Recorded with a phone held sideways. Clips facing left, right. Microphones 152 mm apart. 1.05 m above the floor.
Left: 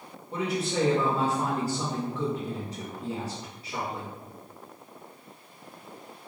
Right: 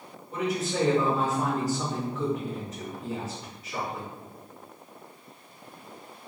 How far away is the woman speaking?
About 1.5 m.